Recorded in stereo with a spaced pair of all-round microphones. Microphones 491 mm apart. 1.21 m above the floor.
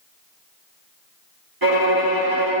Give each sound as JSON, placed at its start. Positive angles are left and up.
{"t": 1.6, "sound": "a violin", "side_deg": -45, "distance_m": 1.7}